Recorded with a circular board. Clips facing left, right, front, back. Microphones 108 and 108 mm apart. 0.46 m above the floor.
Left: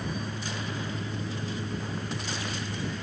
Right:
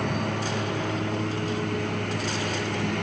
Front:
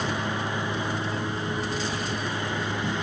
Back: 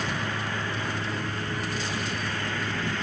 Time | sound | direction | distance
0.0 | a lawn mower | 70° right | ?